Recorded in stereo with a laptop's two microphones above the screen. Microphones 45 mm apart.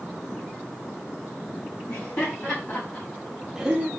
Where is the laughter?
60° left (ahead or behind), 2.0 m; by 3.9 s 35° right (ahead or behind), 0.8 m.